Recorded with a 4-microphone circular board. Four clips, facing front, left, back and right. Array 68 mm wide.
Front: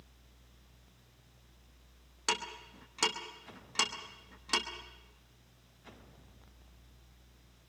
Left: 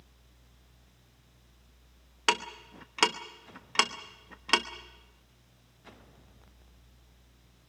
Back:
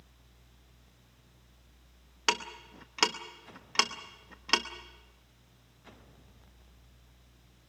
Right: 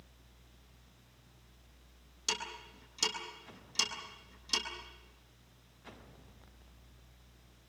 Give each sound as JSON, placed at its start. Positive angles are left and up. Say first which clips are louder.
{"t": 2.3, "sound": "ticking", "louder": "left 11 dB, back 4 dB", "azimuth_deg": 120, "distance_m": 1.1}